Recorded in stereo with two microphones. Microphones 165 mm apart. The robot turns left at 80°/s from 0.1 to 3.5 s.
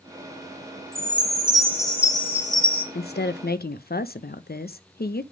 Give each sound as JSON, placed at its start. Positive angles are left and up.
{"t": 0.9, "sound": "a chime", "azimuth_deg": -105, "distance_m": 1.5}
{"t": 3.0, "sound": "a woman speaking", "azimuth_deg": 115, "distance_m": 0.7}